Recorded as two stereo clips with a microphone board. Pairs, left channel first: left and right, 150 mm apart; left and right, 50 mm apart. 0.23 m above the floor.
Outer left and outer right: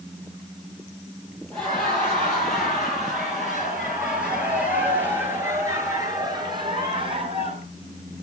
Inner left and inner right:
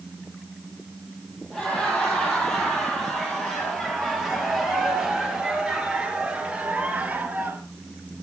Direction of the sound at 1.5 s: 5° left (ahead or behind).